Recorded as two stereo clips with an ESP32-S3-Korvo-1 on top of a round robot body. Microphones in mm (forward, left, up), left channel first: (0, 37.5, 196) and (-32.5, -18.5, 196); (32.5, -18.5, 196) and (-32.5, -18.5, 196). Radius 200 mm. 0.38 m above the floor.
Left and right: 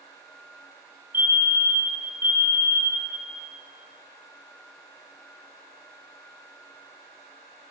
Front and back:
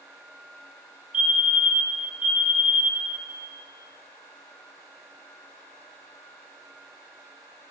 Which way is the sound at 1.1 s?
125° right.